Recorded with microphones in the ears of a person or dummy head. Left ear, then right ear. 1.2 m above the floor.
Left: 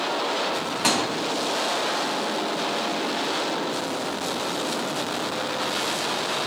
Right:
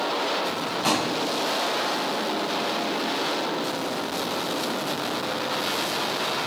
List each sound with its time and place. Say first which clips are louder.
0.8 s a thud: left 1 dB; 30° left (ahead or behind), 1.1 m